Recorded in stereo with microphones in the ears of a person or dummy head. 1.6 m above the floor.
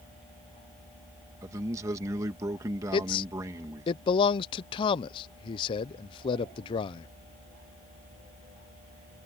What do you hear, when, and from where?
1.4 s a man speaking: 20° right (ahead or behind)
2.9 s a man speaking: 30° left (ahead or behind)